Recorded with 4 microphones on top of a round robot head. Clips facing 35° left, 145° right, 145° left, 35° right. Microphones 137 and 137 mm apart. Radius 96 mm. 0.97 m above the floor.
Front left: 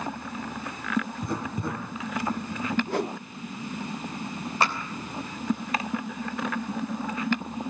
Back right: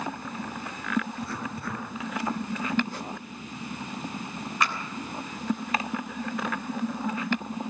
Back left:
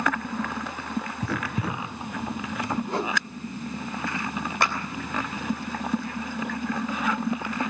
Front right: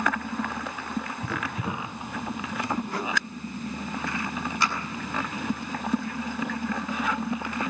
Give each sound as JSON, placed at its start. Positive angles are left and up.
{"t": 1.2, "sound": "writing", "azimuth_deg": 110, "distance_m": 4.5}
{"t": 2.9, "sound": "a whoosh", "azimuth_deg": 75, "distance_m": 0.7}
{"t": 4.6, "sound": "a clap", "azimuth_deg": 100, "distance_m": 3.5}